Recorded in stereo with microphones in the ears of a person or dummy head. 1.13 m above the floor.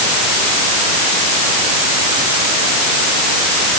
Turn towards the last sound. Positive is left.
No sound to turn to.